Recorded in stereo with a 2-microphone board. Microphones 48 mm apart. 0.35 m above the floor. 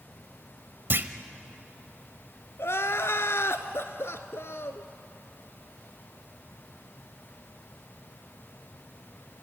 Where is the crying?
60° left (ahead or behind), 0.9 m.